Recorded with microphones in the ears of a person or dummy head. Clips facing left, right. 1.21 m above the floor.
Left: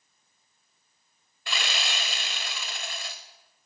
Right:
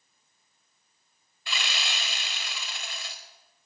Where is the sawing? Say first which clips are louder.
Left 3 dB; 45° left (ahead or behind), 1.3 m.